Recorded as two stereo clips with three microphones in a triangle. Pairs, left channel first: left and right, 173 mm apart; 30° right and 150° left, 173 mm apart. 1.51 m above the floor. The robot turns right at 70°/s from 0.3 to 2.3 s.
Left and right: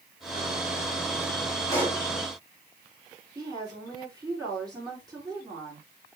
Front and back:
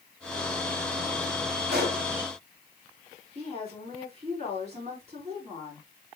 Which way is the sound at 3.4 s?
160° right.